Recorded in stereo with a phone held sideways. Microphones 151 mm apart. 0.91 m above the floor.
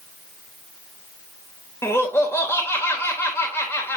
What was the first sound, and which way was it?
Laughter, 15° left (ahead or behind).